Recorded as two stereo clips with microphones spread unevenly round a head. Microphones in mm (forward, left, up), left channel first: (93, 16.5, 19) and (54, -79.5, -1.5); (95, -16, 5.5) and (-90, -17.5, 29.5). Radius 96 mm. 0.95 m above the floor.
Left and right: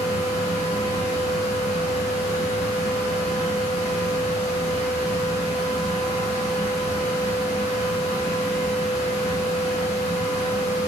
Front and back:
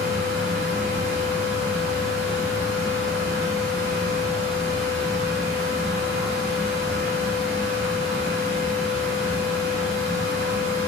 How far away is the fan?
About 1.1 m.